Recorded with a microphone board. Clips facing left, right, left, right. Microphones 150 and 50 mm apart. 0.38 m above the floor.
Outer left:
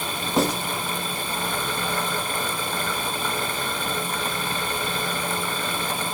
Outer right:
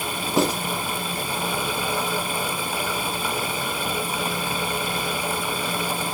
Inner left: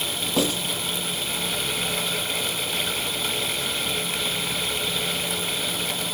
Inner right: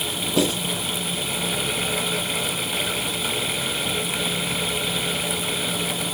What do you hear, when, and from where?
0.4 s writing: 5° right (ahead or behind), 1.9 m